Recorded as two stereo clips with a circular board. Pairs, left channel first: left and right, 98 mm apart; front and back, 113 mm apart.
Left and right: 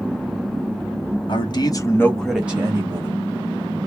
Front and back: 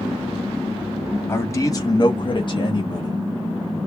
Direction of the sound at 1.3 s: 65° left.